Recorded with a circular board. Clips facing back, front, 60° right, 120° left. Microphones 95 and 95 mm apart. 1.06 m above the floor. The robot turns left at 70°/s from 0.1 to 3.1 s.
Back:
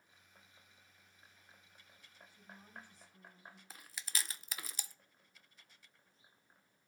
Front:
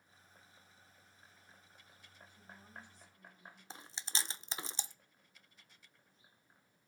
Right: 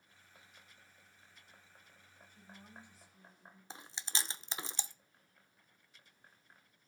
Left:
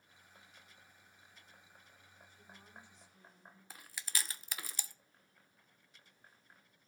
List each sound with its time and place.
2.3 s a woman speaking: 95° right, 5.5 m; by 3.6 s 150° right, 5.5 m
3.7 s chewing: 30° right, 0.5 m